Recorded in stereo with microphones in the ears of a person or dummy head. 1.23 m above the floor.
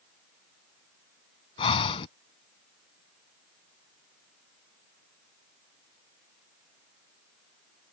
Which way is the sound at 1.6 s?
25° left (ahead or behind).